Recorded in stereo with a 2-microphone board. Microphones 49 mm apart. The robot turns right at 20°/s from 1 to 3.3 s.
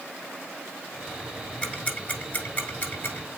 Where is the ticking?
20° left (ahead or behind), 1.5 m; by 3.3 s 50° left (ahead or behind), 1.5 m.